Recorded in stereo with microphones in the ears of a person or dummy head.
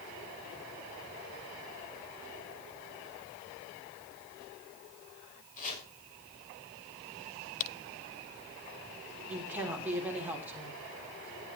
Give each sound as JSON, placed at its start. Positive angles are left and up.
{"t": 5.6, "sound": "chopping", "side_deg": 45, "distance_m": 4.5}
{"t": 7.6, "sound": "a crack", "side_deg": 45, "distance_m": 0.5}
{"t": 9.3, "sound": "a woman speaking", "side_deg": -10, "distance_m": 3.5}